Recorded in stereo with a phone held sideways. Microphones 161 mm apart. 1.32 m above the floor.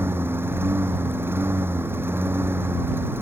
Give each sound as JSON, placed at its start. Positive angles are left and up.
{"t": 0.0, "sound": "a lawn mower", "side_deg": -15}